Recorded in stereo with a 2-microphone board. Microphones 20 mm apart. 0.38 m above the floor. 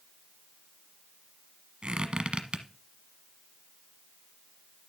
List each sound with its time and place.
1.8 s a squeak: 80° right, 1.1 m